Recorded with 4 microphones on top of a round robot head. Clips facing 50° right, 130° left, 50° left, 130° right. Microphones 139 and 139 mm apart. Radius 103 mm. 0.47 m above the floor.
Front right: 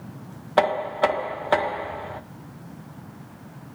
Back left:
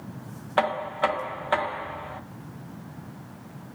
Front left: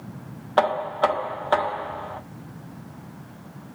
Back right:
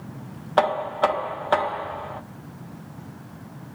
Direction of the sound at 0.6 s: 40° right.